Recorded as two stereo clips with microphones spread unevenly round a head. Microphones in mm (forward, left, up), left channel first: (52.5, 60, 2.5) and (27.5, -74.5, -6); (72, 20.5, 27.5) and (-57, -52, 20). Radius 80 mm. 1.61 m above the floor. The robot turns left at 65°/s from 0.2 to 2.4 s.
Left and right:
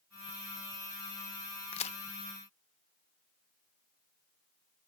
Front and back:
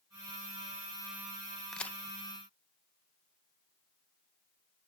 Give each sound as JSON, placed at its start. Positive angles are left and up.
{"t": 1.7, "sound": "a crack", "azimuth_deg": 115}